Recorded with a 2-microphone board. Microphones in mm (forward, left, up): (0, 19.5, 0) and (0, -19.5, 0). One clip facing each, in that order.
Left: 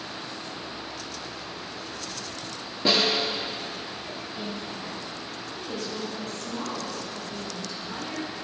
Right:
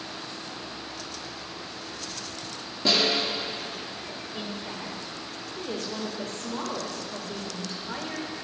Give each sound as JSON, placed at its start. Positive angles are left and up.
{"t": 2.9, "sound": "a snare drum", "side_deg": 20, "distance_m": 2.0}
{"t": 4.3, "sound": "a woman speaking", "side_deg": -55, "distance_m": 2.0}